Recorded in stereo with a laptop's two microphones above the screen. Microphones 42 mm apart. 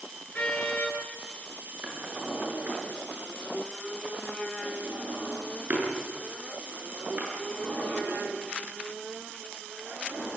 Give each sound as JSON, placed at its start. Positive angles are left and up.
{"t": 0.3, "sound": "a car horn", "side_deg": 40, "distance_m": 10.0}
{"t": 1.8, "sound": "a drawer", "side_deg": -45, "distance_m": 8.0}